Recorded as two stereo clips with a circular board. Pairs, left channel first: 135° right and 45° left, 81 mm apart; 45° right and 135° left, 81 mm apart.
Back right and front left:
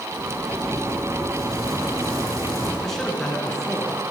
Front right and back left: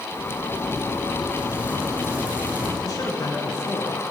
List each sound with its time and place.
0.1 s a zipper: 70° left, 3 m
2.8 s a man speaking: 50° right, 2.5 m